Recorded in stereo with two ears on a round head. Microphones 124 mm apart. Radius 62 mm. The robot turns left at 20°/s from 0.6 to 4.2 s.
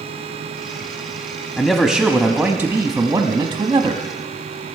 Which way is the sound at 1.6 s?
10° left.